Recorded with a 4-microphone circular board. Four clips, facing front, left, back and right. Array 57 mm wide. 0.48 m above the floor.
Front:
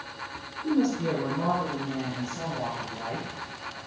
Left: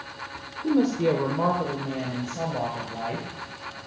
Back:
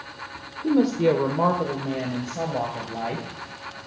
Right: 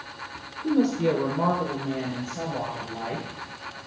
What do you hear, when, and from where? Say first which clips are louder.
0.6 s a woman speaking: even, back 6 dB; 170° left, 1.2 m; by 3.3 s 175° left, 2.5 m